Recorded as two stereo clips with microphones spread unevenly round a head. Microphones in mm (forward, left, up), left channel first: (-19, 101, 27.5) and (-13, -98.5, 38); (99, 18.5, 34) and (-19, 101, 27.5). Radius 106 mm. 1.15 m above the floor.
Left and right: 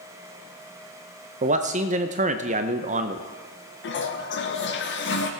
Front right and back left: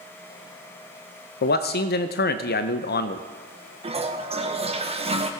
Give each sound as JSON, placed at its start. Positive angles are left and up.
{"t": 1.4, "sound": "a man speaking", "azimuth_deg": -30, "distance_m": 0.6}
{"t": 3.8, "sound": "a toilet flushing", "azimuth_deg": 105, "distance_m": 1.3}